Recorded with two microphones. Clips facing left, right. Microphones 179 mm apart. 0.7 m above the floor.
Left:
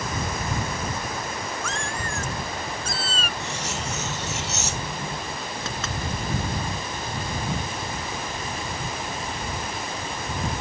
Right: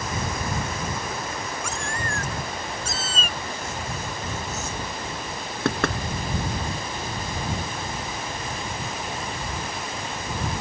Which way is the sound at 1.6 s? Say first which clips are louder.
Even; 15° right (ahead or behind).